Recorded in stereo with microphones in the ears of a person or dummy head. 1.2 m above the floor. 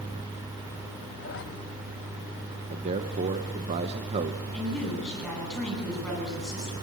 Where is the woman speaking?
10° left (ahead or behind), 10 m.